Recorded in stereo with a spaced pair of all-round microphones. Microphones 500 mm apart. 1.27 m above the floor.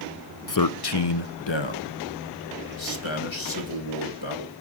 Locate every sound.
0.5 s a man speaking: 40° left (ahead or behind), 0.6 m; by 4.5 s 65° left (ahead or behind), 3 m